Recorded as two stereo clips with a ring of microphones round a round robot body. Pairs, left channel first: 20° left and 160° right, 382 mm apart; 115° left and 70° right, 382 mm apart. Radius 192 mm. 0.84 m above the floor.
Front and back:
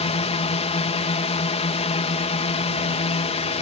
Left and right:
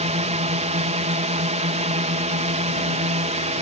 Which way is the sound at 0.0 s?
25° right.